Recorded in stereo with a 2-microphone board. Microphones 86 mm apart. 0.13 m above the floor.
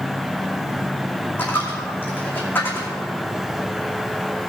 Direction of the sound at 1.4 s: 25° left (ahead or behind).